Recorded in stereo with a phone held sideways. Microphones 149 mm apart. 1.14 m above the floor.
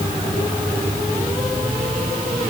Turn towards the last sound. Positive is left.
No sound to turn to.